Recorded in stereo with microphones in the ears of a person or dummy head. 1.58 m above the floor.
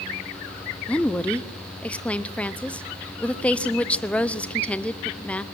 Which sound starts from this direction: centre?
A woman speaking, at 0.9 s.